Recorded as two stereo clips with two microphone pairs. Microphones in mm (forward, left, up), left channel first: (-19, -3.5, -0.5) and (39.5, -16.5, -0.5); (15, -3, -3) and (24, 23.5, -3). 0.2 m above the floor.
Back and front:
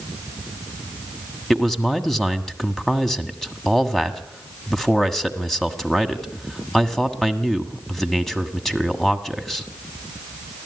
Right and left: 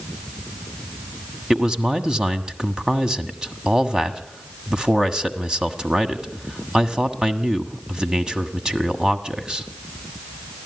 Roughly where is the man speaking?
Left.